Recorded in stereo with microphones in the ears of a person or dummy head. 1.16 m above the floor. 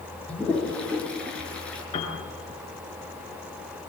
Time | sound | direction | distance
0.3 | a toilet flushing | 5° left (ahead or behind) | 6.5 m
1.9 | a piano | 30° left (ahead or behind) | 6.5 m